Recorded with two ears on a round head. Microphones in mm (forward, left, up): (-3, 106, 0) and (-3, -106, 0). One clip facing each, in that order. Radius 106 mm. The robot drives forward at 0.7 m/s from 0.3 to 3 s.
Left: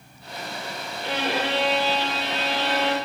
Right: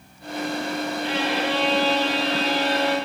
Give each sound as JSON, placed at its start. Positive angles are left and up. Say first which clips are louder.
{"t": 1.0, "sound": "a violin", "louder": "left 1 dB", "side_deg": 35, "distance_m": 1.1}